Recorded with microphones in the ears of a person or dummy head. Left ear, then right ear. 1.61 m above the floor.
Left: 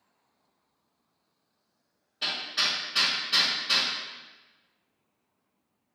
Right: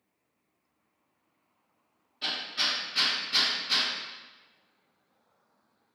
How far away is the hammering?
About 1.7 m.